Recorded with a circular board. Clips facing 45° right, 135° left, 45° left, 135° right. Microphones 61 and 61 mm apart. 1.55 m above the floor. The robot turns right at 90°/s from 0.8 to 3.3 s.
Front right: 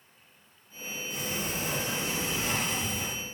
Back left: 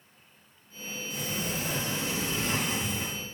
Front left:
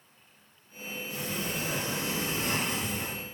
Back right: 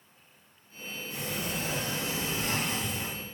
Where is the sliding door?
80° right, 1.4 m; by 3.2 s 105° left, 1.4 m.